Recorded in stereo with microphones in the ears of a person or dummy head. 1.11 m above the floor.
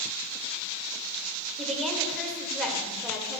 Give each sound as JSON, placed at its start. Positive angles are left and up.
{"t": 1.6, "sound": "a woman speaking", "side_deg": 5, "distance_m": 1.8}